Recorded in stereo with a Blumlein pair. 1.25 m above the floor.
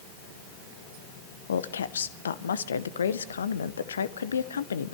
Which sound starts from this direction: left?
A woman speaking, at 1.5 s.